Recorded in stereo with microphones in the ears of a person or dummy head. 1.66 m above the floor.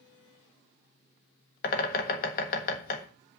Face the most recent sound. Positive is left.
turn(degrees=50)  # may be behind; listen again after turning